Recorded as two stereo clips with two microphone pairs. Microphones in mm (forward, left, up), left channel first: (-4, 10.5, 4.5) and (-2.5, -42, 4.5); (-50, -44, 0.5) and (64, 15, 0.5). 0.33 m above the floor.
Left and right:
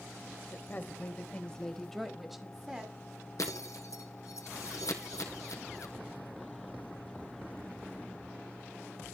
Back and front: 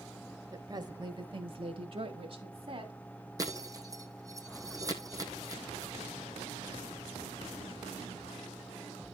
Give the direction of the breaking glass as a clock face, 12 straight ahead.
9 o'clock.